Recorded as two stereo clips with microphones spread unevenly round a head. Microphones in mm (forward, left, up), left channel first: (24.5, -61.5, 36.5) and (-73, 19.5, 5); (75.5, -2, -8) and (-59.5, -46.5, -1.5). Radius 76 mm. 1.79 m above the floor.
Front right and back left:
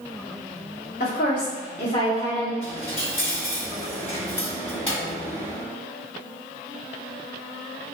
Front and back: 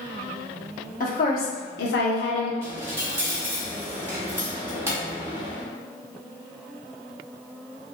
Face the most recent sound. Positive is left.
turn(degrees=-100)